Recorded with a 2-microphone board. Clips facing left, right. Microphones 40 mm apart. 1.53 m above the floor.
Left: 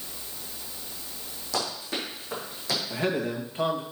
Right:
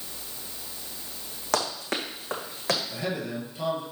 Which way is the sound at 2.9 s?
40° left (ahead or behind).